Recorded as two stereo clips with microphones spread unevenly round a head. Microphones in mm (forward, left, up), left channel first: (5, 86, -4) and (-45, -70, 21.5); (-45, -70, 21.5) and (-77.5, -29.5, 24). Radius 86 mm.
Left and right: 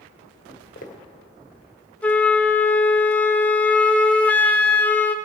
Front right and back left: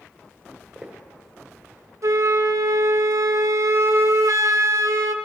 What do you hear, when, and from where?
0.5 s footsteps: 40° left, 1.9 m
2.0 s a flute: 155° left, 0.7 m